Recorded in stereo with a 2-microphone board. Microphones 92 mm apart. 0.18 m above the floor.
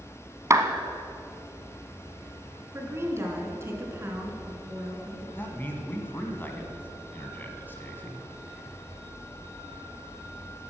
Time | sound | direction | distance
0.5 | a clap | 35° right (ahead or behind) | 0.9 m
2.7 | a woman speaking | 30° right (ahead or behind) | 2 m
5.3 | a man speaking | 20° left (ahead or behind) | 1.5 m